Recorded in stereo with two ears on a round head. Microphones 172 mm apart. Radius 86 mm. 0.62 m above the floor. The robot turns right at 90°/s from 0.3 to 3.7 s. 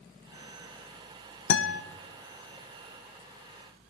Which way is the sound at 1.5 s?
65° left (ahead or behind).